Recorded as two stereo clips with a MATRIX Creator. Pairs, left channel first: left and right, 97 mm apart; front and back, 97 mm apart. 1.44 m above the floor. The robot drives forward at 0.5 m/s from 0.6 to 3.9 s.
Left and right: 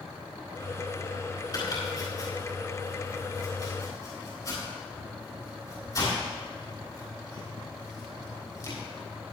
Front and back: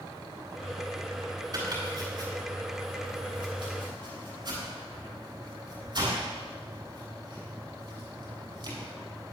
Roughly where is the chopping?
Behind left.